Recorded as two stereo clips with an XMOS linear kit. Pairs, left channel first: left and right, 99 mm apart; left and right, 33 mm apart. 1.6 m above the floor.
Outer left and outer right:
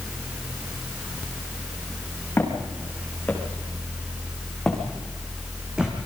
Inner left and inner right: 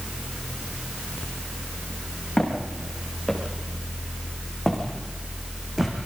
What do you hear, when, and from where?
2.4 s footsteps: 20° left (ahead or behind), 6.5 m; by 6.0 s 10° right (ahead or behind), 4 m